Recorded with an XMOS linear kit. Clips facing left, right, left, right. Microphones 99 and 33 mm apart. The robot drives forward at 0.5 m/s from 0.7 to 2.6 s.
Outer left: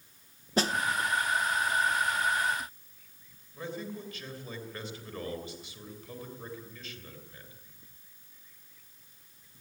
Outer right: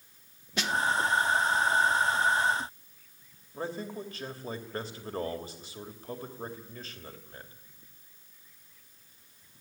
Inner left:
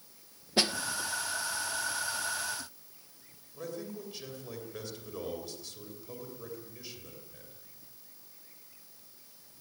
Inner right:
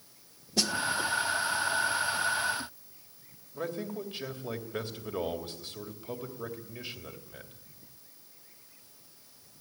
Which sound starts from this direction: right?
A man speaking, at 3.5 s.